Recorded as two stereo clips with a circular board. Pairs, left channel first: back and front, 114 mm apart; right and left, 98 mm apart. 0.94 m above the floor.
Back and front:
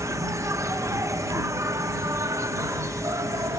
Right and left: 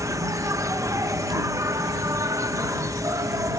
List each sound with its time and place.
0.0 s an insect: 50° left